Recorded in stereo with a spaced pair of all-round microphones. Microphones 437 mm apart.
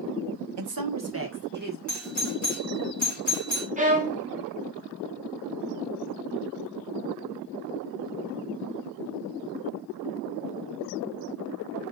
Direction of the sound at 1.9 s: 40° left (ahead or behind).